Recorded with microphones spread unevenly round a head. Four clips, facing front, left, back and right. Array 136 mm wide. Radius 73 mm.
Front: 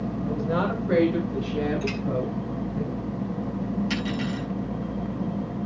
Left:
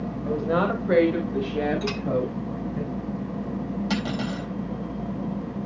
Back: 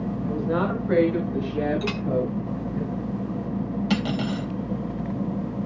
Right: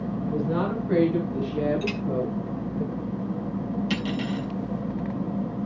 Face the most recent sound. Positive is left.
turn(degrees=145)